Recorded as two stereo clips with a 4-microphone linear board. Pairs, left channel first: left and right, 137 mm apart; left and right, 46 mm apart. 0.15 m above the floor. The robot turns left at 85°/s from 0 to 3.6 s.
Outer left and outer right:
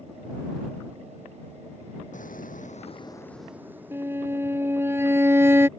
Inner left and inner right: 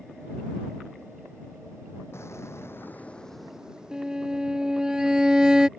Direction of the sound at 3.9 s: 15° right (ahead or behind).